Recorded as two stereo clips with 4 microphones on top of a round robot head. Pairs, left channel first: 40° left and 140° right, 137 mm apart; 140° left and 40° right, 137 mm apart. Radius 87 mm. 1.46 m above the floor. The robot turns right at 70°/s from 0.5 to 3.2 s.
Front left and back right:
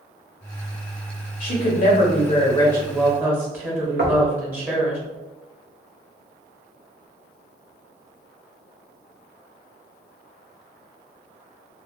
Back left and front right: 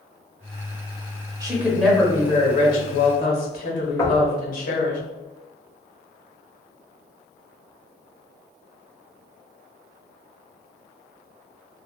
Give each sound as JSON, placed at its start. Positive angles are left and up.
{"t": 1.4, "sound": "a woman speaking", "azimuth_deg": 20, "distance_m": 1.2}
{"t": 4.0, "sound": "knocking", "azimuth_deg": -150, "distance_m": 0.6}